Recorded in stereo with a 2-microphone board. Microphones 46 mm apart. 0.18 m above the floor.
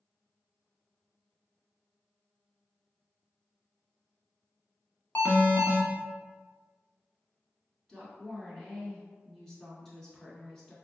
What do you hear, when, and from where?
5.2 s an alarm: 40° left (ahead or behind), 0.9 m
7.9 s a woman speaking: 10° left (ahead or behind), 1.9 m